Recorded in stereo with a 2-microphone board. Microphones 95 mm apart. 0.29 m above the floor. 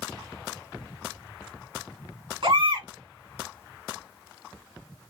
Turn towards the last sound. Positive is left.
turn(degrees=-55)  # may be behind; listen again after turning